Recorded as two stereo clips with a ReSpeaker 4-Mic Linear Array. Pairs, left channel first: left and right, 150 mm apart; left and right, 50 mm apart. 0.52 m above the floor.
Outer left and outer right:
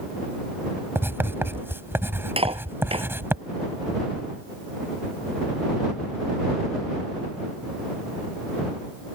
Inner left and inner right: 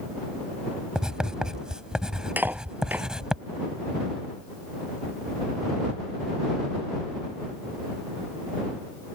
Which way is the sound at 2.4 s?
40° right (ahead or behind).